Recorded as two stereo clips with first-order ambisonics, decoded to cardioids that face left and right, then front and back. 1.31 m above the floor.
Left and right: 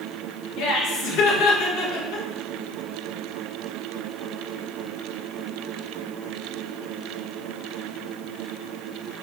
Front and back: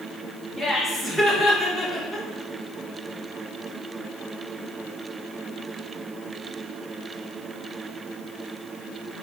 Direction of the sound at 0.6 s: 80° left.